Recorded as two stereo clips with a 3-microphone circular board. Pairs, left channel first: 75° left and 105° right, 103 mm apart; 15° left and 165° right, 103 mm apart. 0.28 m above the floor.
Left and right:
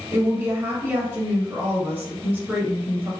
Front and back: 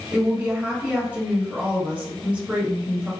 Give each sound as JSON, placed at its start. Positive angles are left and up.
{"t": 0.1, "sound": "a woman speaking", "azimuth_deg": -115, "distance_m": 1.1}